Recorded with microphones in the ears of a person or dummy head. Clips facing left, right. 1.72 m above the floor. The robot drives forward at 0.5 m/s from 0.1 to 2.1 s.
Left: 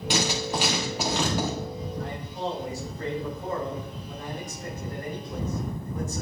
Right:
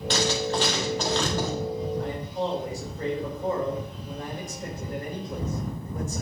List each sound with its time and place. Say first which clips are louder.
0.1 s writing: right 2 dB; 10° left (ahead or behind), 1.2 m; by 1.5 s 5° left (ahead or behind), 1.8 m
2.0 s a man speaking: right 3 dB; 75° right (ahead or behind), 3.5 m